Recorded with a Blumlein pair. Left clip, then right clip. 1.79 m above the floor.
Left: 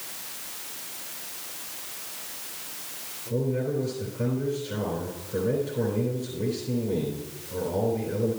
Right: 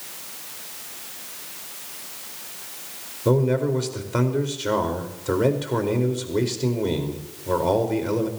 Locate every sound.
3.2 s a man speaking: 40° right, 4.5 m